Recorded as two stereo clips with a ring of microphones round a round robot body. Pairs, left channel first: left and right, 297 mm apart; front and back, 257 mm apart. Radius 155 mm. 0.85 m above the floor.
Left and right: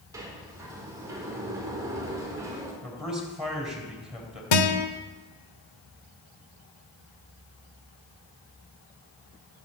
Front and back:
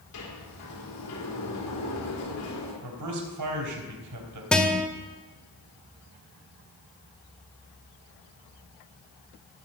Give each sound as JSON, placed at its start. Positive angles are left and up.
{"t": 0.1, "sound": "a sliding door", "azimuth_deg": -10, "distance_m": 3.5}
{"t": 2.8, "sound": "a man speaking", "azimuth_deg": 180, "distance_m": 3.5}
{"t": 4.5, "sound": "a guitar", "azimuth_deg": 85, "distance_m": 1.4}